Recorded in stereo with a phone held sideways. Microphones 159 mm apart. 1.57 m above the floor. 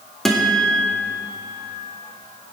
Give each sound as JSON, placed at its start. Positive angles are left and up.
{"t": 0.2, "sound": "a guitar", "side_deg": 0, "distance_m": 1.9}